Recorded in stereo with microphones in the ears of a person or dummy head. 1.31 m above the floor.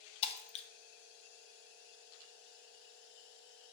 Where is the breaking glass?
35° left (ahead or behind), 0.7 m.